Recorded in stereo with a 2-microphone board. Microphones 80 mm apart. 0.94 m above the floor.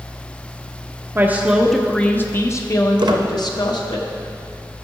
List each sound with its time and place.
1.1 s a woman speaking: 25° right (ahead or behind), 0.6 m; by 4.0 s 65° left (ahead or behind), 1.4 m
3.0 s a squeak: 70° right (ahead or behind), 0.7 m